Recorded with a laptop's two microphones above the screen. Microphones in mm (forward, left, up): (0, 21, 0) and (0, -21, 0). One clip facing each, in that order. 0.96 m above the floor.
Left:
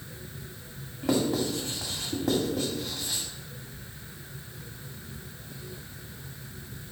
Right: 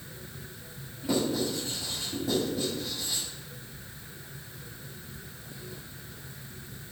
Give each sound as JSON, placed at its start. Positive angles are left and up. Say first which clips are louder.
{"t": 1.0, "sound": "writing", "louder": "left 2 dB", "side_deg": 70, "distance_m": 2.0}